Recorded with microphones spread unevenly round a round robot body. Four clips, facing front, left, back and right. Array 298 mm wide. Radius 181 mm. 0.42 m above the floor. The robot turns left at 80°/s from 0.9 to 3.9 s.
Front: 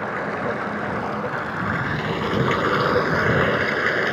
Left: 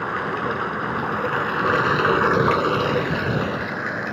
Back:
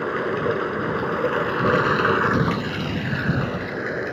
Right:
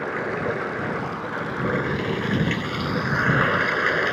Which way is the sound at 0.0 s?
170° right.